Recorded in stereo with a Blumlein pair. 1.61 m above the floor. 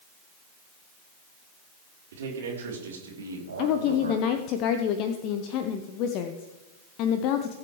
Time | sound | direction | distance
2.1 | a man speaking | 60° right | 4 m
3.6 | a woman speaking | 40° left | 0.9 m